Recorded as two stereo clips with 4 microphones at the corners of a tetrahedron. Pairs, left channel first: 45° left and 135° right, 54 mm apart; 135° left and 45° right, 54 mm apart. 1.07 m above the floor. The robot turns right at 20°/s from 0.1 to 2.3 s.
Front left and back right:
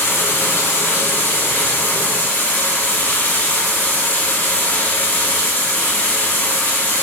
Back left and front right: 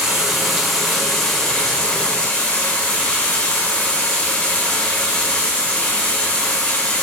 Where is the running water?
35° left, 1.0 m; by 7.0 s 75° left, 1.0 m.